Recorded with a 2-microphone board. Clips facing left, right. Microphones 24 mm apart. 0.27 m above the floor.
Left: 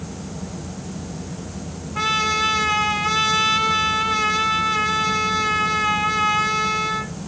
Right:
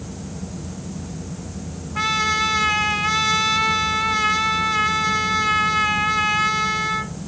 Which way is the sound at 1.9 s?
5° right (ahead or behind).